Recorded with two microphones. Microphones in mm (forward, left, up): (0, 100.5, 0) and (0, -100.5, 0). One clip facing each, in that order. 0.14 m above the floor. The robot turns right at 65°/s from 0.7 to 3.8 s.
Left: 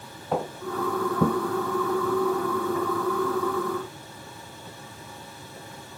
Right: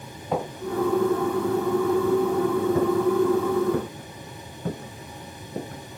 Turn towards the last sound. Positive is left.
turn(degrees=-55)  # may be behind; listen again after turning